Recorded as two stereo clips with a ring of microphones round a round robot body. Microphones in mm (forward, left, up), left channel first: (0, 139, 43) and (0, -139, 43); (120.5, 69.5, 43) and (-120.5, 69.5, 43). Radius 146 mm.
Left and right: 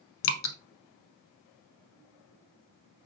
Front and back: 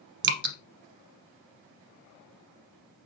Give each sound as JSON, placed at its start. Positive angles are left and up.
{"t": 0.2, "sound": "dripping", "azimuth_deg": 135, "distance_m": 0.9}